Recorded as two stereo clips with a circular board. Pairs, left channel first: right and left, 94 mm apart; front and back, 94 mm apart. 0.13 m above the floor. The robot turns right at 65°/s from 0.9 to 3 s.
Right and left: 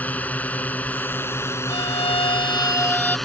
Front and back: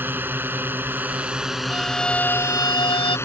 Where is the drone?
140° right; by 3.3 s 5° right.